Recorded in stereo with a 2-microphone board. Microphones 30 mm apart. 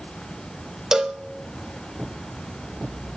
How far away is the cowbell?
About 0.6 m.